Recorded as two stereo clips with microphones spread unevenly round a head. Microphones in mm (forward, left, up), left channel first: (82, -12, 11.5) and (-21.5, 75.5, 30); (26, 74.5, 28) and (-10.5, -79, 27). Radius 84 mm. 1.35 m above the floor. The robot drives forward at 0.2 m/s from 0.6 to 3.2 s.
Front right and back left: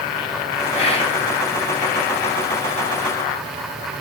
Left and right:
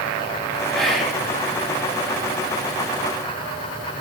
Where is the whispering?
10° right, 0.6 m; by 1.2 s 15° right, 0.5 m.